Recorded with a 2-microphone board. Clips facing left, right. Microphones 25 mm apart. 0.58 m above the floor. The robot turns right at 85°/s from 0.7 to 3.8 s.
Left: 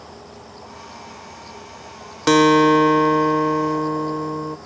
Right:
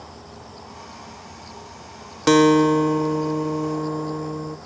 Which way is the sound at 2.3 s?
10° left.